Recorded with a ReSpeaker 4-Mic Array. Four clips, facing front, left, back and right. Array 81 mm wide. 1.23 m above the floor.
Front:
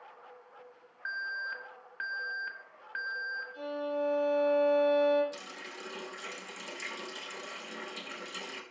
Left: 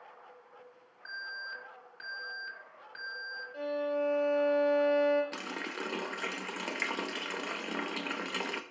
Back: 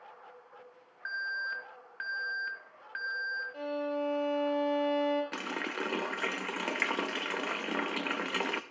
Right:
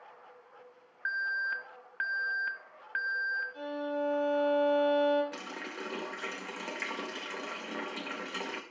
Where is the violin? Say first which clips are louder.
Left 2 dB, front 1 dB; 145° left, 5 m.